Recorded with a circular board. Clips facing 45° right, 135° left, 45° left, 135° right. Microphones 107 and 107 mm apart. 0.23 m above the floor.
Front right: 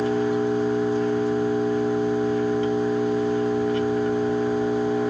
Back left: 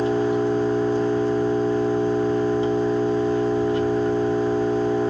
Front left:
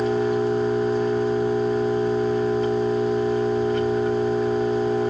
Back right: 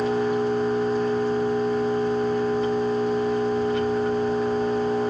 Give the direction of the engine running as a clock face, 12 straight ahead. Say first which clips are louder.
Back left 1 dB, front left 1 dB; 7 o'clock.